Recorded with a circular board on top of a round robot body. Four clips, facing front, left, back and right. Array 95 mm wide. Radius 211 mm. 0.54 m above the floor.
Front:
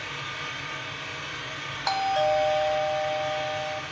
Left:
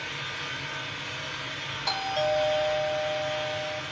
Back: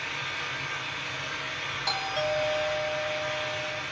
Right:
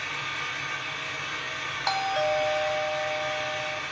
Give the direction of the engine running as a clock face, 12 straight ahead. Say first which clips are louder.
Right 3 dB, even; 3 o'clock.